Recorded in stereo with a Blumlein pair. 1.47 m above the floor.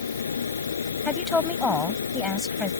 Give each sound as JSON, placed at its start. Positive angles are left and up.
{"t": 0.0, "sound": "a fan", "azimuth_deg": 70}
{"t": 1.1, "sound": "a woman speaking", "azimuth_deg": 15}